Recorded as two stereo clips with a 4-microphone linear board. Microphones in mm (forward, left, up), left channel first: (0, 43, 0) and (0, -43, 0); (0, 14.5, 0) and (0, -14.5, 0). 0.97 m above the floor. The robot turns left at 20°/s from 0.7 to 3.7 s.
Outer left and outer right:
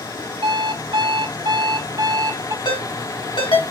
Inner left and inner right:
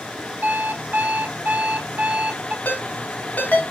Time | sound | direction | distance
0.4 | an alarm clock | 110° right | 0.9 m
2.6 | a ringtone | 70° left (ahead or behind) | 3 m